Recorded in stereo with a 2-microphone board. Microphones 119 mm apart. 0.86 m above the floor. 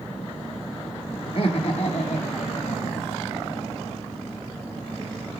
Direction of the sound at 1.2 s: 50° left (ahead or behind).